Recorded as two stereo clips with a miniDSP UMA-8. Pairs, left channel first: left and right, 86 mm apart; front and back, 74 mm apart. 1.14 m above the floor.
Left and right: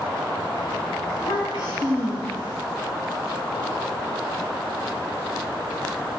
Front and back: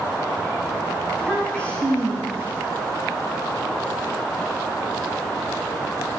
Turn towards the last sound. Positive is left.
turn(degrees=75)